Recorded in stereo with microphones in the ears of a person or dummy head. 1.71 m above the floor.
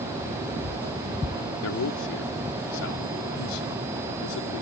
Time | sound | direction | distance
1.6 | a man speaking | 75° left (ahead or behind) | ?